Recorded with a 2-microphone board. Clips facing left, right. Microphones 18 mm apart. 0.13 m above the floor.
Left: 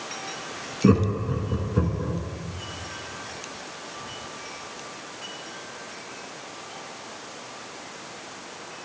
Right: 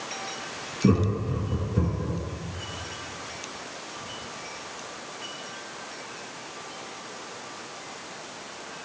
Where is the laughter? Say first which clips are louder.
Left 3 dB; 25° left (ahead or behind), 1.2 m.